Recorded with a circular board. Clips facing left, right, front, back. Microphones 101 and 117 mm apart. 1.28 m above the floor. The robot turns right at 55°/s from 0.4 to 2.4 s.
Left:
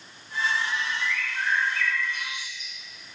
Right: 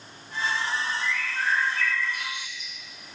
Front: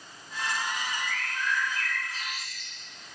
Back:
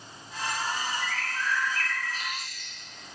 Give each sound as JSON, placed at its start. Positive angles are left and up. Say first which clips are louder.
{"t": 1.0, "sound": "a bird", "louder": "right 1 dB, back 1 dB", "azimuth_deg": -75, "distance_m": 0.8}